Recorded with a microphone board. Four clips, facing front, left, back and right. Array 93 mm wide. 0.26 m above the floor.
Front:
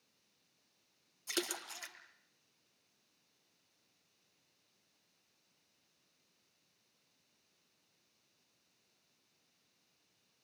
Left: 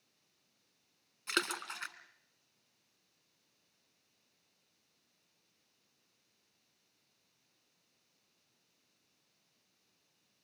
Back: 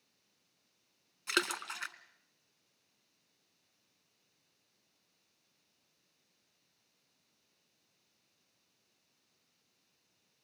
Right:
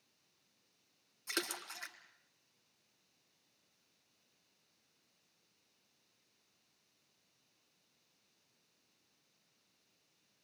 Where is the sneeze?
No sneeze in this recording.